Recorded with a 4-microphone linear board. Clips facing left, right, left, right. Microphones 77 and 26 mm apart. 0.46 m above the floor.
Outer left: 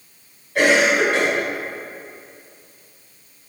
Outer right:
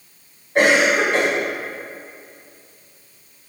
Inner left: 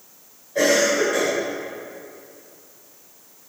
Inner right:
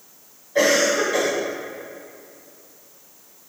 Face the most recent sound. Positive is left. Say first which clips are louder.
# outer right 1 dB, even
turn(degrees=-25)  # may be behind; listen again after turning